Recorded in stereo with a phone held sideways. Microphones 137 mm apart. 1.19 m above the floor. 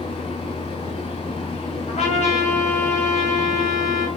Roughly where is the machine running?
Left.